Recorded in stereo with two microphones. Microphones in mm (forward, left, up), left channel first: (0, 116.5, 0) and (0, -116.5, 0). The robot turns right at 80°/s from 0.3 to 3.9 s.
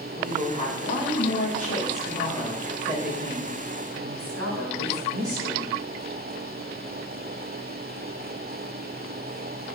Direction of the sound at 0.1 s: 5° left.